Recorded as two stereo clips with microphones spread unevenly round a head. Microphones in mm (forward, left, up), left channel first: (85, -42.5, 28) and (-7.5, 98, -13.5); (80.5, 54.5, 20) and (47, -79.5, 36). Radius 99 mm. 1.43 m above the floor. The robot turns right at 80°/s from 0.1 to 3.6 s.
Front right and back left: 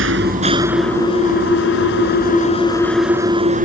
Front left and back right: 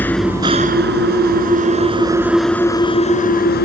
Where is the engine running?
160° left; by 3.6 s 80° left.